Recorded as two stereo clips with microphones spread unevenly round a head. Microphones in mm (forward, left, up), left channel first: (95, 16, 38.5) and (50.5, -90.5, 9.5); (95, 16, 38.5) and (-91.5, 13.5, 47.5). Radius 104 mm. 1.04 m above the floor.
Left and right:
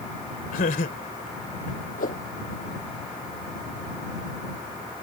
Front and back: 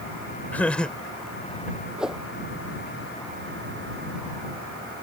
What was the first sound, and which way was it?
Laughter, 85° left.